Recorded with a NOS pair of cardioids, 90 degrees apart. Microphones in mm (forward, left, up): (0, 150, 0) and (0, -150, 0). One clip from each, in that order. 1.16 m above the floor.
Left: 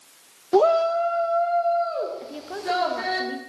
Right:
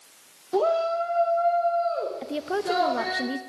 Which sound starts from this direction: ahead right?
A woman speaking, at 2.2 s.